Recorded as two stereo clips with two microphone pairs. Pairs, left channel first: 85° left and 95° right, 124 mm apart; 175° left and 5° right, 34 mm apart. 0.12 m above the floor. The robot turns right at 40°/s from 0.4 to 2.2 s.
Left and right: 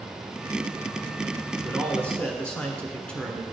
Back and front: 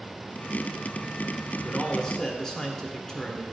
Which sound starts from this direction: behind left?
A man speaking, at 1.6 s.